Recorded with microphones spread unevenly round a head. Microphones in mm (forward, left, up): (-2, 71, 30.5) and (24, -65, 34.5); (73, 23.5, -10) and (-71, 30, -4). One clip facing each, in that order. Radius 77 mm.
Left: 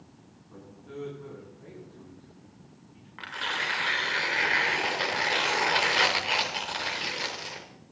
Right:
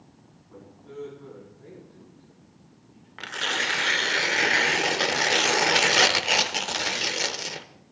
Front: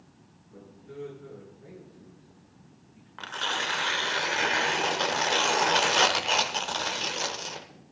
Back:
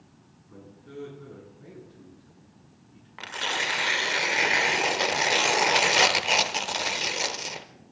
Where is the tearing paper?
110° right, 0.7 m.